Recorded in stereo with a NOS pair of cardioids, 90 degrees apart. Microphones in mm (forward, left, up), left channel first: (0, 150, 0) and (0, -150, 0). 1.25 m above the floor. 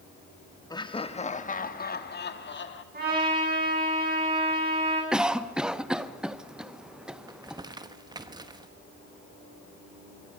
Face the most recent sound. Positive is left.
turn(degrees=-15)